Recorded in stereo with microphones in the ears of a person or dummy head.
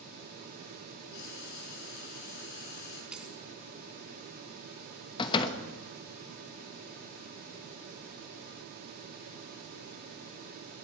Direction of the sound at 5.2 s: 25° left (ahead or behind).